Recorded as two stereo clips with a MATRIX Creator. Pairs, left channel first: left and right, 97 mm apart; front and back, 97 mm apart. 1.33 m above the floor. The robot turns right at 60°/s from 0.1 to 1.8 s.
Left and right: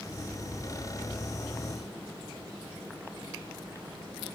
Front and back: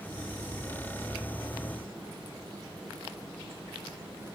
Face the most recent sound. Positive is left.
No sound to turn to.